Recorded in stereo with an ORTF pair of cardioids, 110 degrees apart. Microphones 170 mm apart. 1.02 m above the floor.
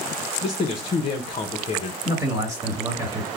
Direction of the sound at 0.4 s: 35° left.